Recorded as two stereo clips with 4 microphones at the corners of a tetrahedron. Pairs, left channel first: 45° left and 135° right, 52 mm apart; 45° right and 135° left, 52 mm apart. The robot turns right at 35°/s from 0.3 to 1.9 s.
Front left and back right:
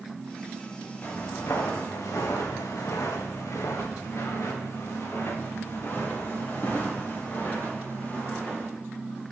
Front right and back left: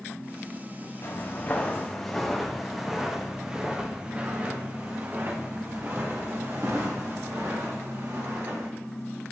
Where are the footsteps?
10° right, 2.5 m; by 8.7 s 110° left, 4.5 m.